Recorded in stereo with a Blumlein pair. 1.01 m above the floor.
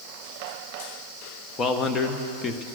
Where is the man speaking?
20° left, 1.1 m.